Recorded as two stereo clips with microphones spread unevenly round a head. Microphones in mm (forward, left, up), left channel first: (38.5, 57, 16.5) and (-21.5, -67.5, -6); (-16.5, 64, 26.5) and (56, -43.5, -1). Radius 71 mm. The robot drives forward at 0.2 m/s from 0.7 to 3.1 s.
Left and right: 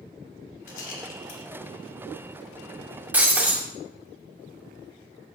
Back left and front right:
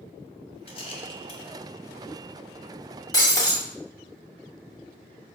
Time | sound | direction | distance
0.7 | a rattle | 85° left | 1.4 m
3.1 | breaking glass | 160° left | 1.3 m